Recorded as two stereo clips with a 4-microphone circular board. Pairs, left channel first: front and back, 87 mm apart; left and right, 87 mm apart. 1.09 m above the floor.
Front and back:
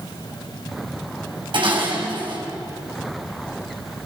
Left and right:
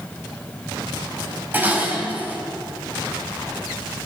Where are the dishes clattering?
160° right, 5 m.